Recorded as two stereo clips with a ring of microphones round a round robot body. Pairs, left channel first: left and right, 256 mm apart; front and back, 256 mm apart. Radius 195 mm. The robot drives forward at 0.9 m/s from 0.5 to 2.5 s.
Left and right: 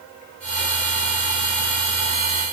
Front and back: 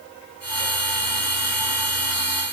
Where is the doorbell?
I don't hear a doorbell.